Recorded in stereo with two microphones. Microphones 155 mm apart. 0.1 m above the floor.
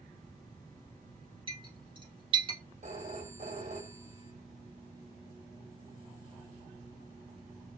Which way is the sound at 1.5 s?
35° right (ahead or behind).